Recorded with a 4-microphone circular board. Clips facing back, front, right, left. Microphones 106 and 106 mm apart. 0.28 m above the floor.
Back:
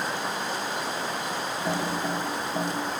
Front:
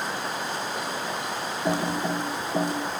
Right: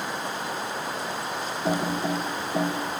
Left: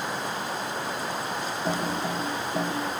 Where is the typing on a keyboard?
30° right, 1.5 m.